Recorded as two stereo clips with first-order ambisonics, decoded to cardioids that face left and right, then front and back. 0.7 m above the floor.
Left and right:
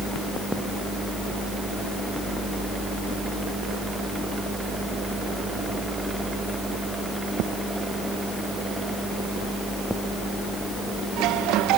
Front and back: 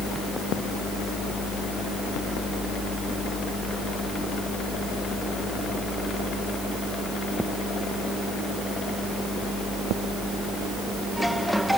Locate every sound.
Only background noise.